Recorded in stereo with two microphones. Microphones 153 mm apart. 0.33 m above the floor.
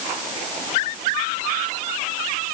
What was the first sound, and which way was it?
Only background noise.